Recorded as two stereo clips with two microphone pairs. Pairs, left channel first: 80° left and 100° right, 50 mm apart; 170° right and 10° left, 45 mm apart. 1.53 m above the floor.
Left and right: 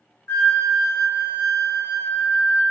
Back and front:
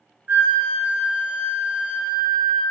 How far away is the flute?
About 0.5 m.